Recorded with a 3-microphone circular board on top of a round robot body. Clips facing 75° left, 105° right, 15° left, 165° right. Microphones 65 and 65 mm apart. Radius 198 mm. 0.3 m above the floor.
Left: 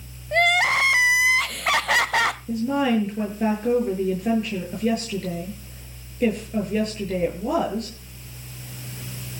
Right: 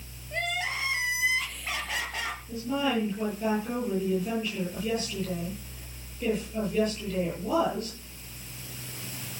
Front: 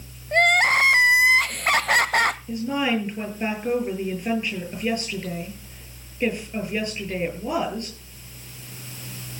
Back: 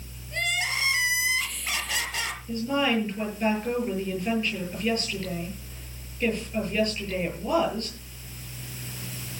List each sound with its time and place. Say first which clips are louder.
0.3 s crying: left 12 dB, front 11 dB; 55° left, 0.6 m
2.5 s a woman speaking: left 3 dB, front 1 dB; 85° left, 9.5 m